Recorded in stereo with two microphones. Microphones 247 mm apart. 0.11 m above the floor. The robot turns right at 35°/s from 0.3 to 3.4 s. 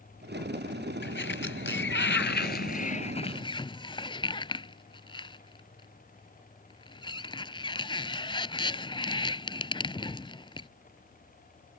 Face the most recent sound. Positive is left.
turn(degrees=20)  # may be behind; listen again after turning